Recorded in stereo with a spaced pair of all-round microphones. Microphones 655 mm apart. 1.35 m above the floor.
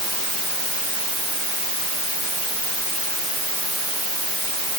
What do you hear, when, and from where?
Only background noise.